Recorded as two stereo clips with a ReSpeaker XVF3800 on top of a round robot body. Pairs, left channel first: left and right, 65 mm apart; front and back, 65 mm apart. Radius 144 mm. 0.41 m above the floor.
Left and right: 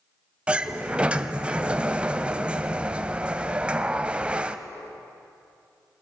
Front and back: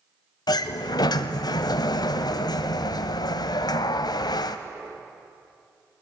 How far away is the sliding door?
About 0.7 m.